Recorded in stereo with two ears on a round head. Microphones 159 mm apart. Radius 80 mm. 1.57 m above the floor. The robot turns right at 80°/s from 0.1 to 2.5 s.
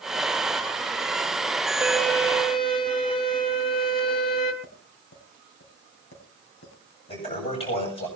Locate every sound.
1.8 s a violin: 15° right, 1.8 m; by 4.5 s 40° left, 1.8 m
4.6 s tapping: 70° left (ahead or behind), 5.5 m
7.1 s a toilet flushing: 35° left (ahead or behind), 8 m